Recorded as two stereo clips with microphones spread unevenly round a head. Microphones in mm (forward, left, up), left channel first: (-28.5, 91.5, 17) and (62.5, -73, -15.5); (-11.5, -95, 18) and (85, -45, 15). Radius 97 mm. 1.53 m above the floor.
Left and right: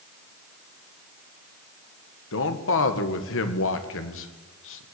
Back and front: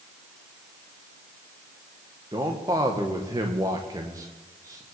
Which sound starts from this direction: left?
A man speaking, at 2.3 s.